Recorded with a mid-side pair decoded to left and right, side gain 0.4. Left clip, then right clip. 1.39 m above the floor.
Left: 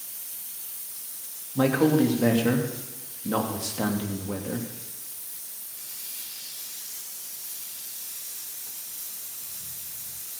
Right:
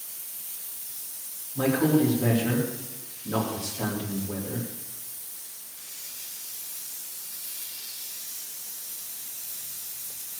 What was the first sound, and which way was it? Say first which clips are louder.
A man speaking: left 2 dB; 55° left.